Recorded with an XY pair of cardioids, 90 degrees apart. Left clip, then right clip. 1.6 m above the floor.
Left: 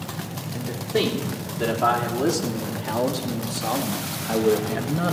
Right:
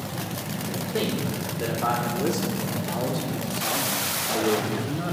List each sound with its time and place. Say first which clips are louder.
0.5 s a man speaking: left 5 dB; 70° left, 3.5 m